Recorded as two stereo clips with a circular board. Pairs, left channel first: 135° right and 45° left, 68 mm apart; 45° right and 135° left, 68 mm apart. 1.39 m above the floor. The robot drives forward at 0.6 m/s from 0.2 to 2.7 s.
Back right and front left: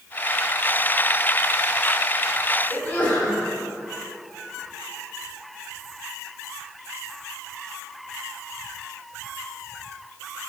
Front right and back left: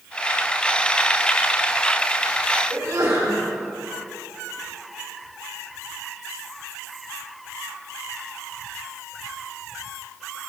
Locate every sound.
2.7 s a sneeze: 160° left, 4 m